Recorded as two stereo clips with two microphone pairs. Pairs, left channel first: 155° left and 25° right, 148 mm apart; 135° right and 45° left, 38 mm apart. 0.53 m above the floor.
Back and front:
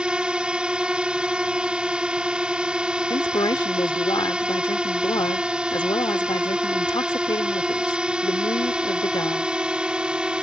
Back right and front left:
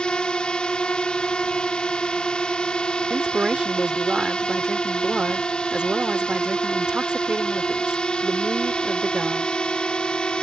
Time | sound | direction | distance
0.0 | a drone | 105° right | ?
3.1 | a woman speaking | 105° left | ?